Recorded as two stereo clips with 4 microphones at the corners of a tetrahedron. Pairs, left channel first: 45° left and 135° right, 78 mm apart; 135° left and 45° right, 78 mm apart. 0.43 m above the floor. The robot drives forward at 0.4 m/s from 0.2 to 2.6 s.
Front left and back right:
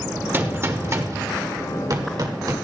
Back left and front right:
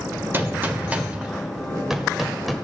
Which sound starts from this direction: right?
A gunshot, at 0.3 s.